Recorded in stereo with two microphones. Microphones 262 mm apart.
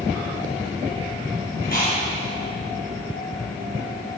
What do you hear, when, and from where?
1.6 s chewing: 35° left (ahead or behind), 2.5 m